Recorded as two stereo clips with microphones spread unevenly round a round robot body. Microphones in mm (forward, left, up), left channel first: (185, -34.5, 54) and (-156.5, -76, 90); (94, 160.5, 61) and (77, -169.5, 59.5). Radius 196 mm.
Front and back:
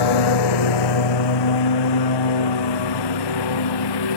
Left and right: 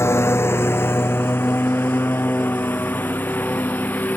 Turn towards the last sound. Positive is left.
turn(degrees=0)